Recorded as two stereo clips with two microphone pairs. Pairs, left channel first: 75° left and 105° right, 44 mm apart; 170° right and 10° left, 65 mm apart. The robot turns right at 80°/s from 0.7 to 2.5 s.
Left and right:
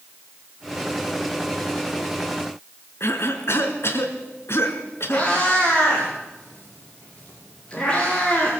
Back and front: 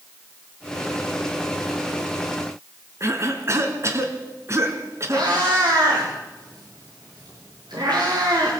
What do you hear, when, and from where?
3.0 s a cough: 50° left, 3 m
5.1 s a cat meowing: 5° left, 8 m